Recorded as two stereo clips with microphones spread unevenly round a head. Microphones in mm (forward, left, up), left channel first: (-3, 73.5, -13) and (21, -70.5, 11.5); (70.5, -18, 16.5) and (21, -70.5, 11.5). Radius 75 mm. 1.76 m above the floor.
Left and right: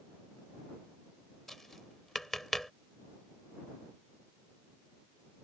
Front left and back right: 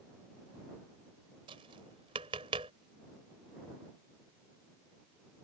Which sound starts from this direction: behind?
Tapping, at 1.5 s.